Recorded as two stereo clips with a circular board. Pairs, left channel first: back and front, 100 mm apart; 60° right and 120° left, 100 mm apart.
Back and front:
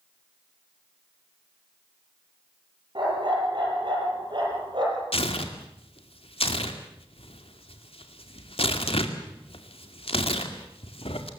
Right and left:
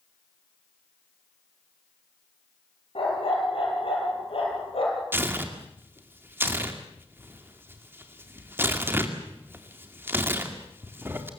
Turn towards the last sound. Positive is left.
turn(degrees=-170)